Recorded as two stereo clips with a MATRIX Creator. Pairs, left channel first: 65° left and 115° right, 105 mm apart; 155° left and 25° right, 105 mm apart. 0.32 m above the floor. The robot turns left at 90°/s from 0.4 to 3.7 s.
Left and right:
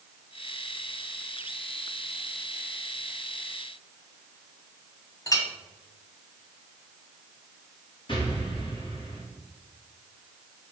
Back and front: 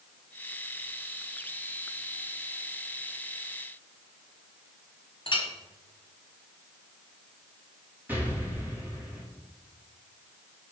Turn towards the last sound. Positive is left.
turn(degrees=45)